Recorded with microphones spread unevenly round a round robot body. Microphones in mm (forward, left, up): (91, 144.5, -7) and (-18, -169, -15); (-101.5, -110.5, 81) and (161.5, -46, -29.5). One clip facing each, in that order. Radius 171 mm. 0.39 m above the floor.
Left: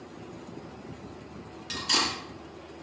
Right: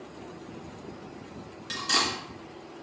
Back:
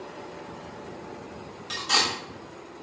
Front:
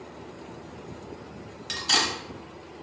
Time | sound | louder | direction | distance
1.7 | cutlery clinking | even, even | 15° right | 1.2 m